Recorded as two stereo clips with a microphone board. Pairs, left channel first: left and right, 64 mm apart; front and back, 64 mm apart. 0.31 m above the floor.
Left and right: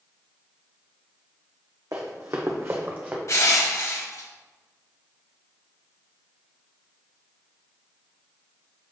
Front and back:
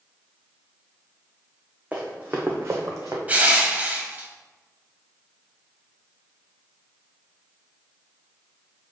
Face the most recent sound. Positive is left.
turn(degrees=120)